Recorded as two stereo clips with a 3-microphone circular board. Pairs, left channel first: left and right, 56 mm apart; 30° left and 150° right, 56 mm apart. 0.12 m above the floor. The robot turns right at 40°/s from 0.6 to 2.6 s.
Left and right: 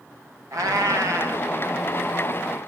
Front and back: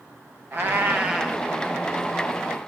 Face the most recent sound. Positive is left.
turn(degrees=-15)